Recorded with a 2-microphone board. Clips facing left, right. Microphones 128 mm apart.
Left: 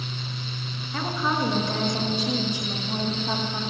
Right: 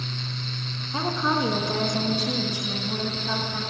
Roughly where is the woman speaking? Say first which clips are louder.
Right 2 dB; centre.